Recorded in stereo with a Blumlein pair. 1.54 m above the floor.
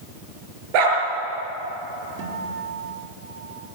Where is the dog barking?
45° right, 6.5 m.